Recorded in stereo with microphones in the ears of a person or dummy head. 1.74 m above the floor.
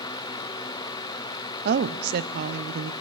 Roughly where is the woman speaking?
Right.